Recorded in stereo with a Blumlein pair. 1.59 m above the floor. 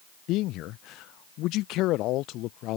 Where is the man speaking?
40° left.